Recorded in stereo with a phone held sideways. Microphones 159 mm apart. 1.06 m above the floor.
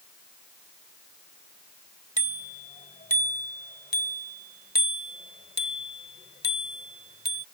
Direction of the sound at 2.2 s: 55° left (ahead or behind).